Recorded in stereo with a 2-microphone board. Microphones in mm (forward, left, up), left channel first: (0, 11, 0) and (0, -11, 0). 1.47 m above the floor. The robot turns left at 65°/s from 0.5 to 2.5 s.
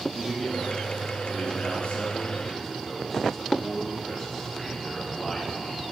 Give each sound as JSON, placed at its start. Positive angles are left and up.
{"t": 0.1, "sound": "a man speaking", "azimuth_deg": 150, "distance_m": 3.0}